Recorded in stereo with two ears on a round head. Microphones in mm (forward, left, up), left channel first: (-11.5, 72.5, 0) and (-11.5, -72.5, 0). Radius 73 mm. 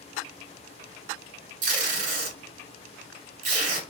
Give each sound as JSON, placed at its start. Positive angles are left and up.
{"t": 1.6, "sound": "tape being pulled", "side_deg": -50, "distance_m": 1.2}